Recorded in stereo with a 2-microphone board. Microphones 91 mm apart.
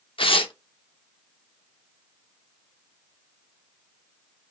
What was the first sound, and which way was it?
Tearing paper, 75° left (ahead or behind).